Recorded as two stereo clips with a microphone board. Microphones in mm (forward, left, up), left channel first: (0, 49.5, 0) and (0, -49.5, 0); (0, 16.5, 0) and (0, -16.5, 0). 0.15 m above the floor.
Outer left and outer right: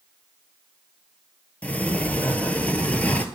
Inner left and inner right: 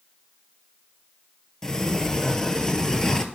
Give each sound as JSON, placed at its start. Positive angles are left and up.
{"t": 1.6, "sound": "a sliding door", "side_deg": 15, "distance_m": 0.5}